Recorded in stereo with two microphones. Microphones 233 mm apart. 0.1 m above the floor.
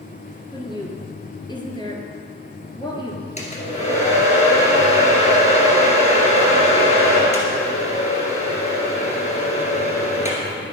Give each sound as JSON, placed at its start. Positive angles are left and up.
{"t": 0.5, "sound": "a woman speaking", "side_deg": 20, "distance_m": 1.6}
{"t": 3.4, "sound": "a hair dryer", "side_deg": 30, "distance_m": 2.0}